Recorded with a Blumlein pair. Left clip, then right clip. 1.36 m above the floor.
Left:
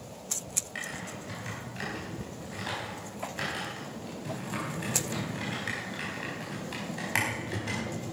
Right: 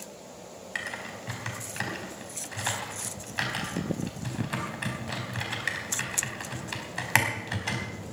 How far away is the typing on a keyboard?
About 4 m.